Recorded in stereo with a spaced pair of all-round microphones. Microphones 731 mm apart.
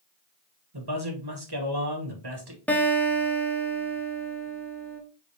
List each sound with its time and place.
0.7 s a man speaking: 35° right (ahead or behind), 1.3 m
2.7 s a guitar: centre (ahead or behind), 1.0 m